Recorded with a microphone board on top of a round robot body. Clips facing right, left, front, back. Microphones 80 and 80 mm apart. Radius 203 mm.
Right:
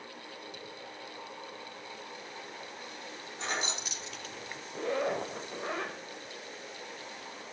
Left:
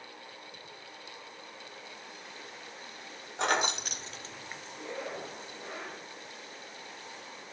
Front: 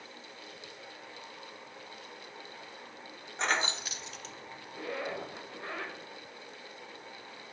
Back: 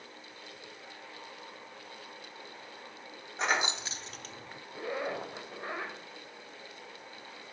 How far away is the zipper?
About 1.5 m.